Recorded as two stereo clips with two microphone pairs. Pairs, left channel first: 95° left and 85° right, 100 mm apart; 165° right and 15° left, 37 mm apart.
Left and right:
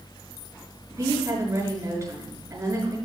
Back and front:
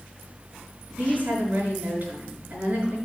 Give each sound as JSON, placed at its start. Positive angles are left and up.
{"t": 0.9, "sound": "a woman speaking", "azimuth_deg": -30, "distance_m": 6.0}